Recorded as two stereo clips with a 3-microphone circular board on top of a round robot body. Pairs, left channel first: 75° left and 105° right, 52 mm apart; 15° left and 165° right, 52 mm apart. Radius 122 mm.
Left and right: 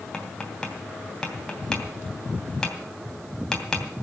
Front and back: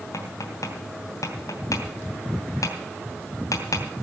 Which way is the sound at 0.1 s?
Straight ahead.